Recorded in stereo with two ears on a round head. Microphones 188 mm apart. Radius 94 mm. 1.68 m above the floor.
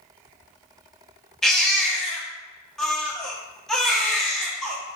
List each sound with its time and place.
1.4 s a baby crying: centre (ahead or behind), 0.7 m